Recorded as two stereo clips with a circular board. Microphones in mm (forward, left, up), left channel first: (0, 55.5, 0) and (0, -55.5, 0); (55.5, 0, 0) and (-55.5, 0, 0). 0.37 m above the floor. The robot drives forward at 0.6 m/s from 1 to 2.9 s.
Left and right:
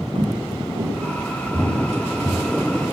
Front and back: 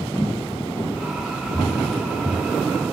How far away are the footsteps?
About 6.5 m.